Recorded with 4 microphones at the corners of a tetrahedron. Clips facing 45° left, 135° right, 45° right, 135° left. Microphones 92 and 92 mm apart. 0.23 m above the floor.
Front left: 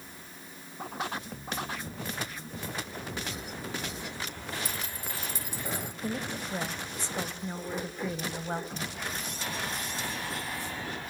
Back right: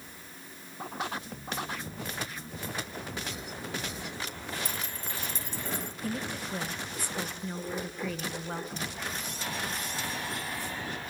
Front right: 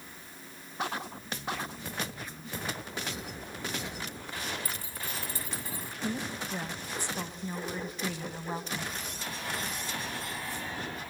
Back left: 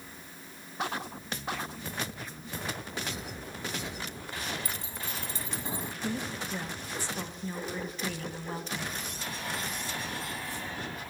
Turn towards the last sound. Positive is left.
turn(degrees=10)